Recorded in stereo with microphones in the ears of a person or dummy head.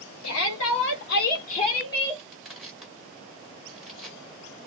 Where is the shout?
80° left, 1.3 m; by 2.2 s 10° left (ahead or behind), 1.1 m.